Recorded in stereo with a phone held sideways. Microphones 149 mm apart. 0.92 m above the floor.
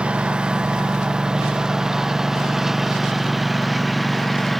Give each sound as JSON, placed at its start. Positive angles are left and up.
{"t": 0.0, "sound": "a lawn mower", "side_deg": -5}